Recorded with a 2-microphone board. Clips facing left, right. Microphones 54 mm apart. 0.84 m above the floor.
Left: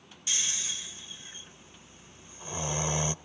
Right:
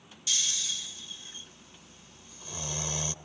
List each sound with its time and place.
0.3 s snoring: 25° left (ahead or behind), 0.6 m